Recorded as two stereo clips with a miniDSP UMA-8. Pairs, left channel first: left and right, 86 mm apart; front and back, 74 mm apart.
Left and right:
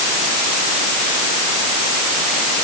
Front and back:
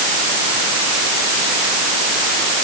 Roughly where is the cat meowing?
I don't hear a cat meowing.